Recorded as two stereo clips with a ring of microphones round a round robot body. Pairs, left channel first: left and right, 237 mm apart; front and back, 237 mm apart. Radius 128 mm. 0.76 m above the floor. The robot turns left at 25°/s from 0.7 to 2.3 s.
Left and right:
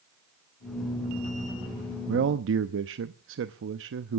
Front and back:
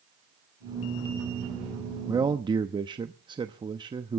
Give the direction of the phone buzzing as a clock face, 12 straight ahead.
I don't hear a phone buzzing.